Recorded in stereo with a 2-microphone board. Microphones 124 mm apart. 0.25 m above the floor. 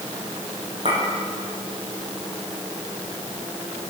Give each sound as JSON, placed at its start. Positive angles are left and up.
{"t": 0.8, "sound": "a clink", "side_deg": -50, "distance_m": 7.5}